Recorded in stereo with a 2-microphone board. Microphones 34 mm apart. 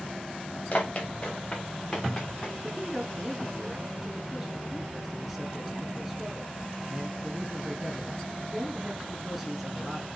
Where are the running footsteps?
30° left (ahead or behind), 1.9 m; by 2.5 s 5° left (ahead or behind), 2.5 m.